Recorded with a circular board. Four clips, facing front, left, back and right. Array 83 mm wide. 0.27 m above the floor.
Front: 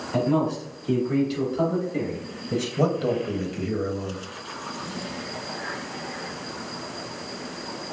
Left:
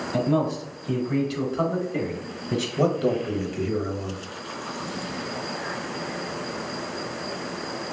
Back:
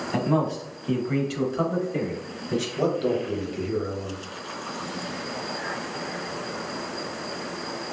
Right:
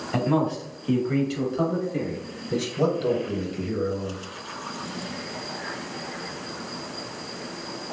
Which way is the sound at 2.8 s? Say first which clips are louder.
Left 1 dB, front 1 dB; 65° left.